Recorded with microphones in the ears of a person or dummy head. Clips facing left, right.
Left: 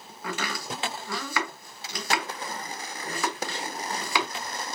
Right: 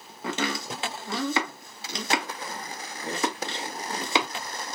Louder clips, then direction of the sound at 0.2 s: Right 4 dB; 25° right (ahead or behind).